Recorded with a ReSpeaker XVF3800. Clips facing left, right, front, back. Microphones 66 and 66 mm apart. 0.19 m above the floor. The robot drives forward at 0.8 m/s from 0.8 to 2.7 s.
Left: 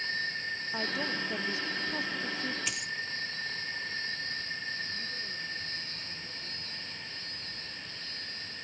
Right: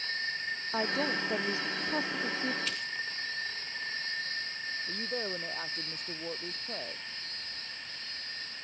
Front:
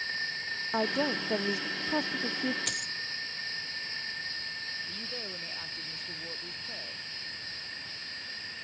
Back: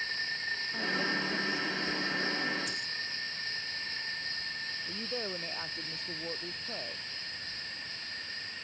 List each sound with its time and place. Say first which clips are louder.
0.7 s a woman speaking: right 4 dB, front 5 dB; 20° right; by 2.6 s 25° right
2.7 s a dropped coin: even, front 2 dB; 15° left
4.9 s a woman speaking: right 4 dB, back 4 dB; 110° right